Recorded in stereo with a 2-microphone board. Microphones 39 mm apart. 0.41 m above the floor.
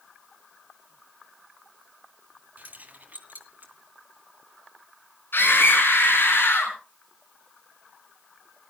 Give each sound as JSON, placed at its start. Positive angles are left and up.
{"t": 2.6, "sound": "keys jangling", "side_deg": -45, "distance_m": 1.7}
{"t": 5.3, "sound": "a scream", "side_deg": 70, "distance_m": 5.5}